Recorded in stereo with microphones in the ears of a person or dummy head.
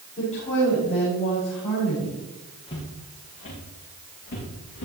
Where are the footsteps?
30° left (ahead or behind), 5 m; by 4.8 s 50° left (ahead or behind), 7 m.